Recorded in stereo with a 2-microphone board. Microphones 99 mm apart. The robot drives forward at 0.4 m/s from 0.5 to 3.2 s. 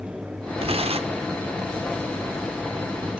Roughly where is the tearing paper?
Right.